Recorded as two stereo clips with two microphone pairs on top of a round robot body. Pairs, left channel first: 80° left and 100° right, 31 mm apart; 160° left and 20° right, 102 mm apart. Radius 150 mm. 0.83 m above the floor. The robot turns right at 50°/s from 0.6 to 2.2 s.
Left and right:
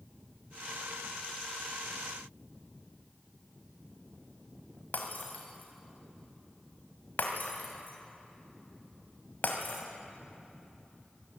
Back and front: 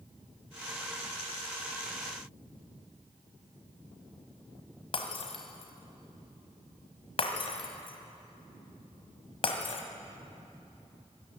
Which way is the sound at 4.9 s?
115° left.